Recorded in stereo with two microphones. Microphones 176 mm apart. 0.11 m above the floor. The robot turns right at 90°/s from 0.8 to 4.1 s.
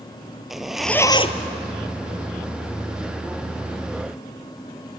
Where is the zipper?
Straight ahead, 0.9 m; by 1.5 s 60° left, 0.9 m.